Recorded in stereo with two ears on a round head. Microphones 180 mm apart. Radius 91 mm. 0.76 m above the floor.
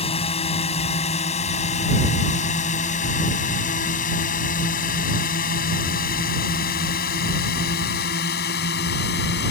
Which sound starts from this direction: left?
A drone, at 0.0 s.